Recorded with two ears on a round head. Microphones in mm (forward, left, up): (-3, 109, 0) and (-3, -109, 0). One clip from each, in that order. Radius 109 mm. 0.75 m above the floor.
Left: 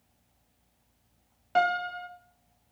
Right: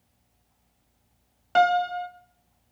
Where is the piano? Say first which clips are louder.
Right 5 dB; 25° right (ahead or behind), 1.4 m.